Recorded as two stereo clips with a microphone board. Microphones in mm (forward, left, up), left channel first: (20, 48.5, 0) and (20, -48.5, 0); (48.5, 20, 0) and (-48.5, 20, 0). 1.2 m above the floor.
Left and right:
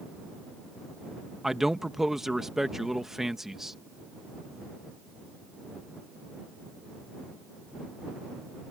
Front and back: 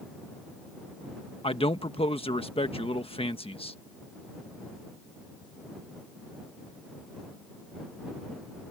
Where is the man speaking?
5° right.